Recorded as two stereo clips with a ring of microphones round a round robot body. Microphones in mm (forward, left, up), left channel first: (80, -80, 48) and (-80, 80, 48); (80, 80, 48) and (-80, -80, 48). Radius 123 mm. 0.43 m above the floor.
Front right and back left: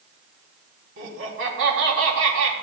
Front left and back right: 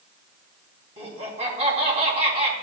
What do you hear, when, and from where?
1.0 s laughter: 165° left, 4 m